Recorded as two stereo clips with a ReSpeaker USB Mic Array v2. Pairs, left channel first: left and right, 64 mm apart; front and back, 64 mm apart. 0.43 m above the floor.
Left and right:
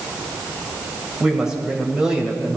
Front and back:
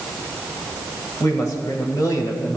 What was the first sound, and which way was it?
A woman speaking, 10° right.